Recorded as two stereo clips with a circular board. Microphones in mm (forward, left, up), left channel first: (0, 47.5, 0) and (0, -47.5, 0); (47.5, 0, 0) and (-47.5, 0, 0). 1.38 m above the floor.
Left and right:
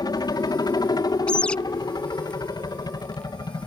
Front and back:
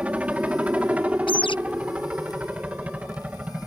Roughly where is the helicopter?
Left.